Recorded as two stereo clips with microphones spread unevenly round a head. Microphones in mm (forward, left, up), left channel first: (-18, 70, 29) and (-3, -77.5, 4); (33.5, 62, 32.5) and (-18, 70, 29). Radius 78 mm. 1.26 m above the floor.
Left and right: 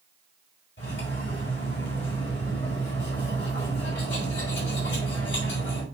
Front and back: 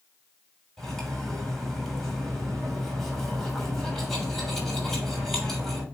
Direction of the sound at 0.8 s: 75° left.